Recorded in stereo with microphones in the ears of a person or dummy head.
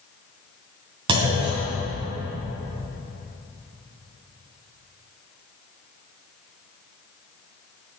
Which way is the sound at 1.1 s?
35° right (ahead or behind).